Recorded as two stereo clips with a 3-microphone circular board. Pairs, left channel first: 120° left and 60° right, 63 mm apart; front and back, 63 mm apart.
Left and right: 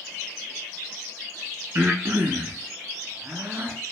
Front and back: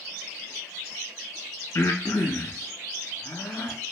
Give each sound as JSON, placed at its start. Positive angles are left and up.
{"t": 1.8, "sound": "breathing", "azimuth_deg": -20, "distance_m": 0.5}